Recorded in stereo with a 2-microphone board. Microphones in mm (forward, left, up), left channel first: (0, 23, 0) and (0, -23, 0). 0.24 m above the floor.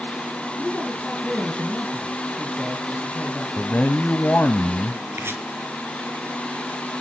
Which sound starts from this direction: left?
A man speaking, at 3.6 s.